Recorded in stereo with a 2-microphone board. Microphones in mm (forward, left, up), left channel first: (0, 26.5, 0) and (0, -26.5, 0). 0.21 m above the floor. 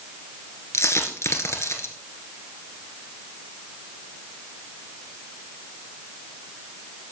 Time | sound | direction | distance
0.7 | a dropped coin | 75° left (ahead or behind) | 1.6 m